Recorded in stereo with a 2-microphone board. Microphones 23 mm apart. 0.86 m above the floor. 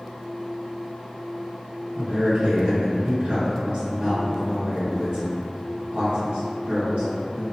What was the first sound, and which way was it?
A man speaking, 55° right (ahead or behind).